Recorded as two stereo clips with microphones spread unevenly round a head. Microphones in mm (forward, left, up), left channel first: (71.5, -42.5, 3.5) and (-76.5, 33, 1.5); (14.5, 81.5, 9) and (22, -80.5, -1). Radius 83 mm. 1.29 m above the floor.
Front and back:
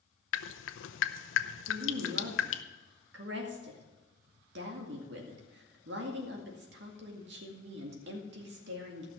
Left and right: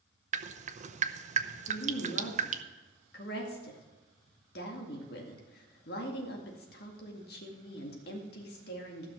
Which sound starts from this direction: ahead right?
Dripping, at 0.3 s.